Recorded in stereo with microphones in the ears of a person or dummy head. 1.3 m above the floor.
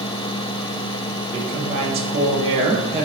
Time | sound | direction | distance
1.3 | a woman speaking | 30° right (ahead or behind) | 1.2 m